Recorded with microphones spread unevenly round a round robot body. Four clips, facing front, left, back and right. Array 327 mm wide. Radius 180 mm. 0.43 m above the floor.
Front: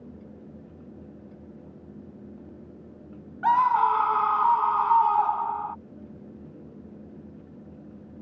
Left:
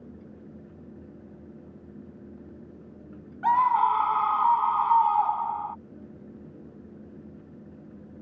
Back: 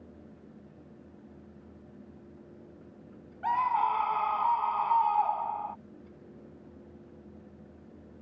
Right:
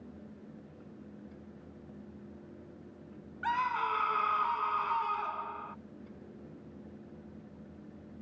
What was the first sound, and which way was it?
A scream, 10° left.